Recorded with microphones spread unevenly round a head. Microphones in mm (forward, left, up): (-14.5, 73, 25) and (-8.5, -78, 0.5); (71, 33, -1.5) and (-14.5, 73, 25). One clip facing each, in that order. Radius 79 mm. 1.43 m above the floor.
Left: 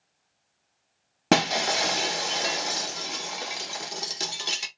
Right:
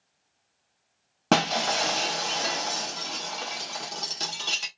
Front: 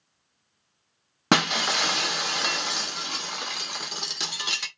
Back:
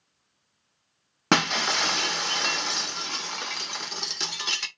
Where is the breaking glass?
90° left, 0.6 m.